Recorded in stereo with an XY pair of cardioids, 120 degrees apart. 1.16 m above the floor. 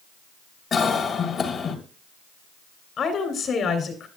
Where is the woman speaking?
50° left, 2.5 m.